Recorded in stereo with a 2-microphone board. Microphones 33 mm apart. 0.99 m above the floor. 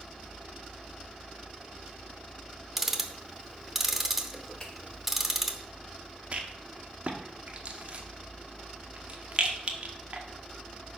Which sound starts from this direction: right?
A rattle, at 6.3 s.